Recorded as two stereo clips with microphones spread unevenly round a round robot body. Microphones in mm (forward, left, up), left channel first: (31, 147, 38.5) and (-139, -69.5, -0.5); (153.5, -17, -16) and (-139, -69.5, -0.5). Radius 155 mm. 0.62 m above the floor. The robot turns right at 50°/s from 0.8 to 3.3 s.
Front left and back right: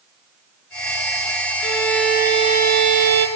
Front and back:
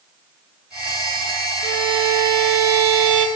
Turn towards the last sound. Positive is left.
turn(degrees=-155)